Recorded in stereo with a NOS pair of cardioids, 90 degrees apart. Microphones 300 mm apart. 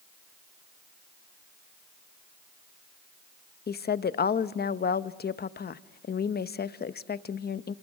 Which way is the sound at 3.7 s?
30° left.